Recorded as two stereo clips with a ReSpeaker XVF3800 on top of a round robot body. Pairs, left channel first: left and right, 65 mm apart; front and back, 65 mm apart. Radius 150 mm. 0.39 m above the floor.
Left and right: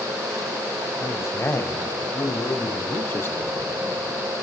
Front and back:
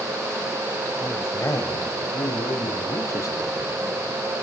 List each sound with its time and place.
1.0 s a man speaking: 45° left, 2.5 m; by 3.5 s 35° left, 4.5 m